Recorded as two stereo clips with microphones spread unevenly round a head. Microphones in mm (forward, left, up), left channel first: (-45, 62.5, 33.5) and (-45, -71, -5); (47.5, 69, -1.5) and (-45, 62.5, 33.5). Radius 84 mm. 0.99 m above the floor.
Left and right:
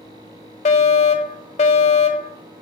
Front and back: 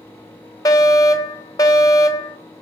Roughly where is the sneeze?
No sneeze in this recording.